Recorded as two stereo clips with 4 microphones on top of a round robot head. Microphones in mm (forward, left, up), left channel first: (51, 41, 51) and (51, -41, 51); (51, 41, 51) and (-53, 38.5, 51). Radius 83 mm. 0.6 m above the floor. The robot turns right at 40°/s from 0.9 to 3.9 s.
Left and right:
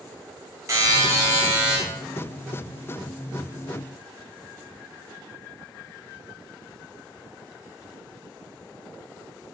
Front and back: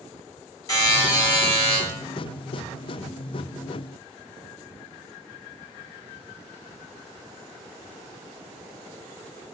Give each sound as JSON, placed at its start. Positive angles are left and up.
{"t": 0.7, "sound": "a buzzer", "azimuth_deg": -45, "distance_m": 1.2}